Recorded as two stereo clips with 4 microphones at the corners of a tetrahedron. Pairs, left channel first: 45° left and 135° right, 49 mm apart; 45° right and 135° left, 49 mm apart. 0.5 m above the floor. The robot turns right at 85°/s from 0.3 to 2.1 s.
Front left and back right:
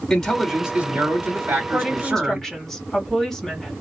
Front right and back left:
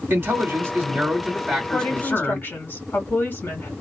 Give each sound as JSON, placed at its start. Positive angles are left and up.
{"t": 0.1, "sound": "a man speaking", "azimuth_deg": 125, "distance_m": 2.0}
{"t": 1.6, "sound": "a woman speaking", "azimuth_deg": -80, "distance_m": 1.9}